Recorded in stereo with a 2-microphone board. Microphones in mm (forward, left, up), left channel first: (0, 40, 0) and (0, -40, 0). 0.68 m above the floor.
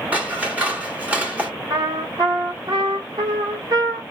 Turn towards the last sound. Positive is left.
turn(degrees=-60)  # may be behind; listen again after turning